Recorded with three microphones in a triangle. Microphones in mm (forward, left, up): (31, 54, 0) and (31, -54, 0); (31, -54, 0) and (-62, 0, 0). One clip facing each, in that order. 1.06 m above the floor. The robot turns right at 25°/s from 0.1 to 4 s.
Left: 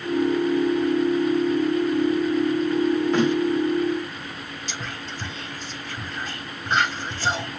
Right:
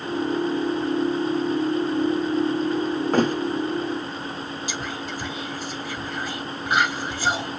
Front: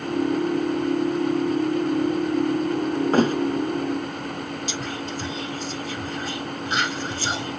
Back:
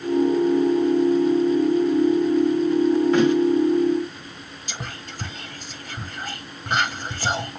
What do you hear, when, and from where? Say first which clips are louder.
3.1 s a thud: right 3 dB, front 1 dB; 60° right, 0.6 m; by 3.4 s 55° right, 0.6 m
4.7 s whispering: right 4 dB, front 7 dB; 170° right, 1.0 m